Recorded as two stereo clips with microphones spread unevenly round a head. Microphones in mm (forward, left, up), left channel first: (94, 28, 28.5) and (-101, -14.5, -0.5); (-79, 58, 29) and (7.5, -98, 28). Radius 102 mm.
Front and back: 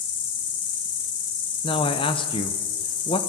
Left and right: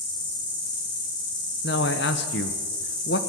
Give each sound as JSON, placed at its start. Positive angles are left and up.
{"t": 0.0, "sound": "an insect", "azimuth_deg": 50, "distance_m": 2.5}
{"t": 1.6, "sound": "a man speaking", "azimuth_deg": 80, "distance_m": 0.9}